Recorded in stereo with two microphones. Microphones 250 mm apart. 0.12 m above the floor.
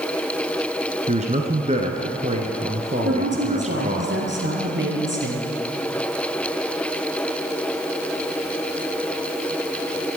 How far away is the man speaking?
About 1.3 m.